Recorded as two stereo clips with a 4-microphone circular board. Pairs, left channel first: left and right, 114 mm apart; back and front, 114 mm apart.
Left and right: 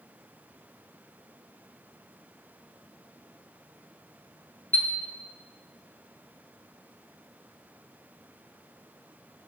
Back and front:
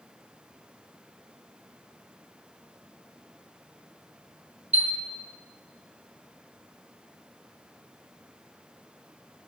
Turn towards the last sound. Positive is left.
turn(degrees=15)